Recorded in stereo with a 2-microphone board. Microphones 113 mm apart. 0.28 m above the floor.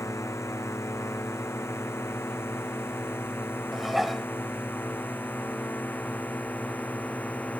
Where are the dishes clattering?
Centre (ahead or behind).